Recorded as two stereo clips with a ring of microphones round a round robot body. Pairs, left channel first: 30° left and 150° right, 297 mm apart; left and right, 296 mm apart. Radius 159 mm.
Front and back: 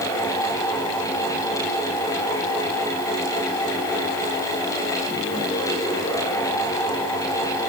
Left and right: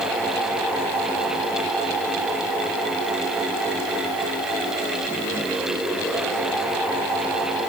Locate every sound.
Only background noise.